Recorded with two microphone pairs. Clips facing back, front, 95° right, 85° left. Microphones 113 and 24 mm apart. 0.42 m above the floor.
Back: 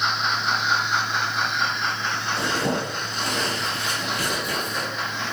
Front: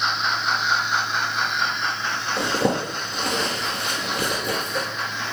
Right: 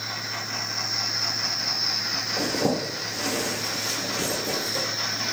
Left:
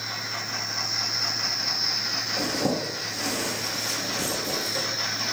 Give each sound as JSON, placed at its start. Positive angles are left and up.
{"t": 2.4, "sound": "a zipper", "azimuth_deg": -30, "distance_m": 1.3}